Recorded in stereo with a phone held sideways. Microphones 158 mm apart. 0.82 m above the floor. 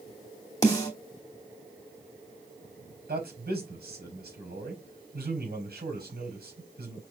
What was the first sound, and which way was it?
A snare drum, 20° left (ahead or behind).